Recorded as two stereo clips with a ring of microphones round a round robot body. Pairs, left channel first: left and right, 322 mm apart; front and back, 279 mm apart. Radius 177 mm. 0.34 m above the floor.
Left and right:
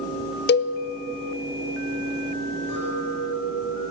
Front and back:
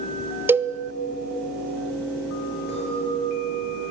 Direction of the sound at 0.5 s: 105° left.